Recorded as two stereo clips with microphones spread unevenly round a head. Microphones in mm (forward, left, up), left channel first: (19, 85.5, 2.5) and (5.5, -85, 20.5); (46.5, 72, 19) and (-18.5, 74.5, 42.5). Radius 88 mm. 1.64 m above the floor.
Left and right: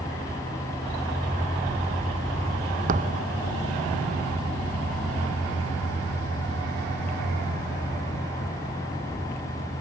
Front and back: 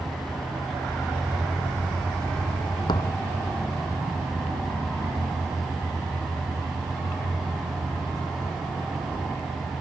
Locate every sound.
2.9 s a thud: 50° right